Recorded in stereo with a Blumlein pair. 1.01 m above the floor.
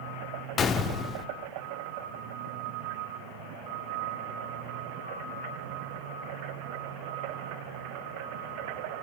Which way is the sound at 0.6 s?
25° left.